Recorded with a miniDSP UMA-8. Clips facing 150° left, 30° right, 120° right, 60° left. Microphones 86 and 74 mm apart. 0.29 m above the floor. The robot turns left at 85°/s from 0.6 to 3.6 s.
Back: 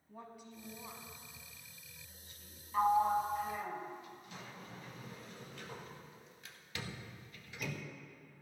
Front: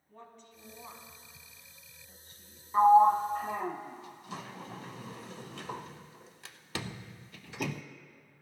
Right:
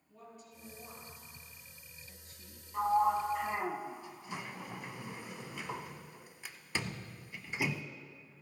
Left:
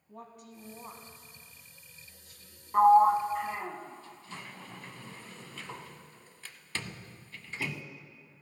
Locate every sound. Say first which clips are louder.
0.1 s a woman speaking: back 1 dB, left 5 dB; 70° left, 1.7 m; by 2.6 s 100° right, 1.7 m
2.7 s a sliding door: front 9 dB, left 9 dB; 30° left, 0.5 m; by 7.8 s 45° right, 0.5 m